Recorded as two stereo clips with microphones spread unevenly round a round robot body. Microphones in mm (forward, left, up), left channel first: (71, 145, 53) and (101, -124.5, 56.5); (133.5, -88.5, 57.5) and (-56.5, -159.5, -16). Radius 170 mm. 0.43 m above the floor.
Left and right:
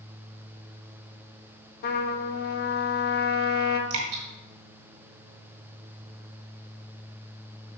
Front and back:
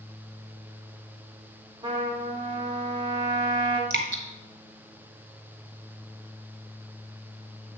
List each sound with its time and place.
1.8 s a trumpet: 145° left, 0.6 m
3.9 s dripping: 130° right, 1.6 m